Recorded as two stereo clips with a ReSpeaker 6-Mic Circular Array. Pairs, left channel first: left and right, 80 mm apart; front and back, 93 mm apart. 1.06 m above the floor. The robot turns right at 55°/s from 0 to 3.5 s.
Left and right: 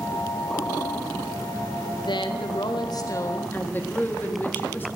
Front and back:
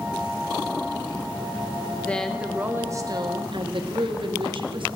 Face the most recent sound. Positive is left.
turn(degrees=155)